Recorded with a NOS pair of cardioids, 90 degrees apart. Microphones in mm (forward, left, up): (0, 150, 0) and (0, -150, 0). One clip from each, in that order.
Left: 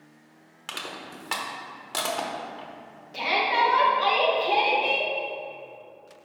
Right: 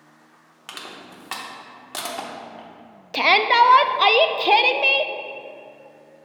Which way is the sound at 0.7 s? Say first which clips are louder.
Left 1 dB; straight ahead.